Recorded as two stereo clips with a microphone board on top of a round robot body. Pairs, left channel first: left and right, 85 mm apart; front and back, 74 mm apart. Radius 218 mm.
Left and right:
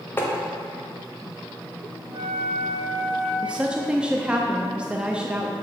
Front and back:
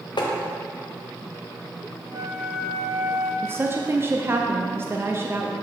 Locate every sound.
0.2 s tapping: 25° left, 0.7 m
2.1 s a flute: 130° right, 1.0 m
3.4 s a woman speaking: 160° right, 0.8 m